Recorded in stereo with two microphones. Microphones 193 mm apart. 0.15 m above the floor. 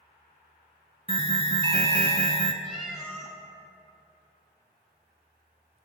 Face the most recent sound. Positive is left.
turn(degrees=0)  # may be behind; listen again after turning